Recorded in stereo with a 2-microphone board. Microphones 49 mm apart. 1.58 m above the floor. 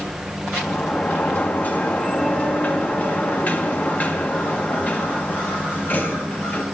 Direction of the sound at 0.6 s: 35° left (ahead or behind).